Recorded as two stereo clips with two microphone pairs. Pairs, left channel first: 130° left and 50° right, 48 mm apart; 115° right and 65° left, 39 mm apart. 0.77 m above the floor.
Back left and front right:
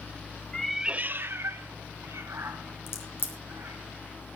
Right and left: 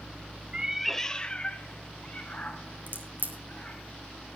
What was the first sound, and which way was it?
A cat meowing, 80° left.